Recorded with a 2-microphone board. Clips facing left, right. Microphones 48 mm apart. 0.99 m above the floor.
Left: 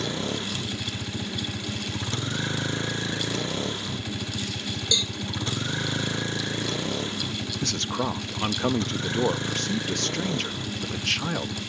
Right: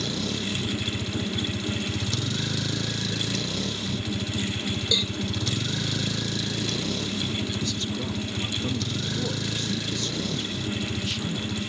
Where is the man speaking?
70° left (ahead or behind).